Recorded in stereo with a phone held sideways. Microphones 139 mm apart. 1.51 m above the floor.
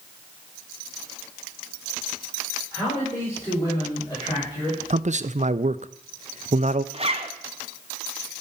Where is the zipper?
40° right (ahead or behind), 1.0 m.